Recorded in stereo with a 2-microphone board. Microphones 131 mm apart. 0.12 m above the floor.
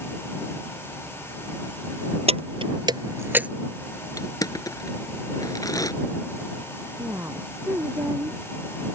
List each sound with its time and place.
2.3 s keys jangling: 50° right (ahead or behind); by 3.5 s 10° right (ahead or behind)
4.2 s crushing: 30° left (ahead or behind)
7.0 s a woman speaking: 20° right (ahead or behind)